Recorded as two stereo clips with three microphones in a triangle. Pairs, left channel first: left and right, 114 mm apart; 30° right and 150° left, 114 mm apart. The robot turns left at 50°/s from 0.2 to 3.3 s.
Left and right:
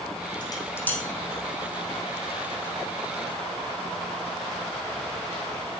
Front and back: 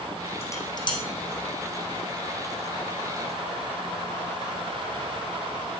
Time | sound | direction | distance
0.4 | dishes clattering | 40° left | 4 m